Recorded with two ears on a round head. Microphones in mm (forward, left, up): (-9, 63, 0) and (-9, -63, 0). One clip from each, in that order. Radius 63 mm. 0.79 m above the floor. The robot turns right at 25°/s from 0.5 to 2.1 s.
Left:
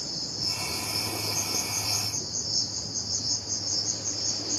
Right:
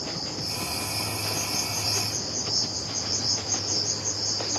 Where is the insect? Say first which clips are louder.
Even; 130° left, 1.4 m; by 4.6 s 170° left, 1.4 m.